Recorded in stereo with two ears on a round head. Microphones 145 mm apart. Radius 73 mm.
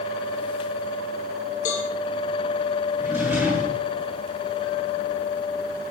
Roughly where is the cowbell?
Left.